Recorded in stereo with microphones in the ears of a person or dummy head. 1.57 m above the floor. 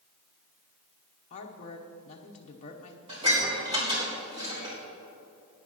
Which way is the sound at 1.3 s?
40° left (ahead or behind).